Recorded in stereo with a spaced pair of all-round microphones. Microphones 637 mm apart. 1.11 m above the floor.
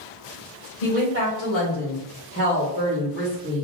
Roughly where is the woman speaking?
Left.